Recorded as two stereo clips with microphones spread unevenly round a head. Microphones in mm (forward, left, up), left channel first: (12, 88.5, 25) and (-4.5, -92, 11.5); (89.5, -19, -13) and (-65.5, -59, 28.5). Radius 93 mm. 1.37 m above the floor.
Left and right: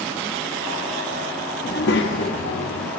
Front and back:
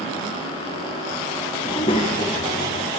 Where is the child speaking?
85° left, 1.0 m; by 2.9 s 90° left, 1.8 m.